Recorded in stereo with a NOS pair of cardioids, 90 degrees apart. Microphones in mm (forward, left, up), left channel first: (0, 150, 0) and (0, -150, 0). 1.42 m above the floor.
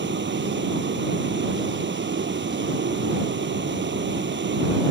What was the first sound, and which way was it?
A vehicle, 35° right.